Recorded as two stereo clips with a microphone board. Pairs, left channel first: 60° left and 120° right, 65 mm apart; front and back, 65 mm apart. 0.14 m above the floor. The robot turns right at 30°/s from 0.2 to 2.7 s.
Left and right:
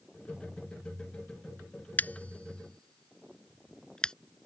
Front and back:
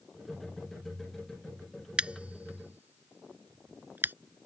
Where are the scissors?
110° left; by 4.1 s 135° left.